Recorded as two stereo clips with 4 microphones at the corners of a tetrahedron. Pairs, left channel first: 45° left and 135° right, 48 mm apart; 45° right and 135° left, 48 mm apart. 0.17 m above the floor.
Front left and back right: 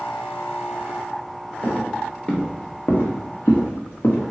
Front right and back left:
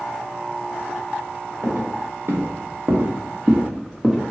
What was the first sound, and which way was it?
Footsteps, 125° left.